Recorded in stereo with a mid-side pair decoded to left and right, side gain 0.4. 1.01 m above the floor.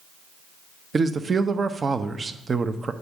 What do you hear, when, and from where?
0.9 s a man speaking: 40° right, 0.8 m